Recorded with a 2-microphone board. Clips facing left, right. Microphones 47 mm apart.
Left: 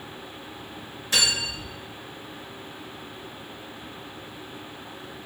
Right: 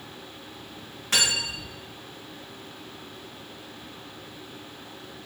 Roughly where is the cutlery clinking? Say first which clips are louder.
Even; right.